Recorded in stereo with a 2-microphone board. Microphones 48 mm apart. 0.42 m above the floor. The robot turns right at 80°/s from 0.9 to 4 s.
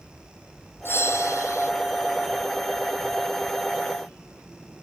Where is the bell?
50° left; by 1.7 s 115° left.